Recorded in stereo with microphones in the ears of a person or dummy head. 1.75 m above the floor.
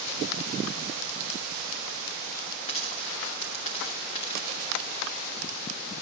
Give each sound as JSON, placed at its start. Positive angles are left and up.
{"t": 2.7, "sound": "a dropped coin", "side_deg": 30, "distance_m": 2.0}